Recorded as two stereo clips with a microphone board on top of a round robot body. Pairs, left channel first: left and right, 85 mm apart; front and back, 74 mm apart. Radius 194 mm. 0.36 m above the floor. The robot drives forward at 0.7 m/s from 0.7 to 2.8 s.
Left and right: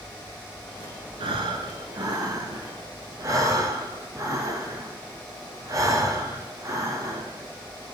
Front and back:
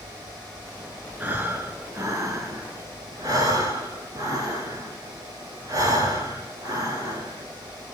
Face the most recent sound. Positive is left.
turn(degrees=-140)